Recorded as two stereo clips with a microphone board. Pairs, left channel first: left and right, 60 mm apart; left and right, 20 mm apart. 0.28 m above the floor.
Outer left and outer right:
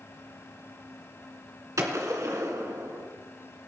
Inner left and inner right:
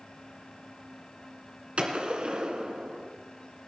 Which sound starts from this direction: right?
A gunshot, at 1.8 s.